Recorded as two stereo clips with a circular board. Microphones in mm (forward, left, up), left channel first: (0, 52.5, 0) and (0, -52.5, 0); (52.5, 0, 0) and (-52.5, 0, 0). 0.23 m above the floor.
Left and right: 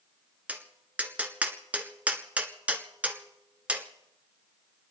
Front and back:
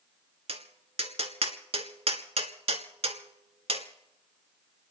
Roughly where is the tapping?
Behind.